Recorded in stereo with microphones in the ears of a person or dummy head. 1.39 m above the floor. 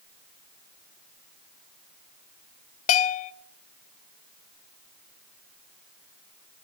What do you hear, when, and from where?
2.9 s a bell: 35° left (ahead or behind), 0.7 m